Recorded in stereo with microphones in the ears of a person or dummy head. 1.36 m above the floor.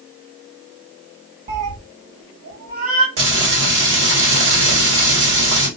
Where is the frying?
70° right (ahead or behind), 1.6 m.